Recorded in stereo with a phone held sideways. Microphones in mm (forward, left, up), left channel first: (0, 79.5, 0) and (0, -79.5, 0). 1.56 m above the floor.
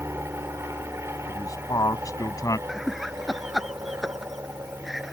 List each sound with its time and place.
0.0 s an aircraft: 15° right (ahead or behind)
1.3 s a man speaking: 20° left (ahead or behind)
2.7 s laughter: centre (ahead or behind)